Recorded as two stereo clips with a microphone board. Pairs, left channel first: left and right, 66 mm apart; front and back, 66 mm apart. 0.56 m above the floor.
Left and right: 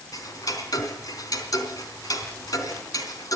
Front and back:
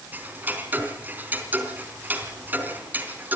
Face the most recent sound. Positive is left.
turn(degrees=115)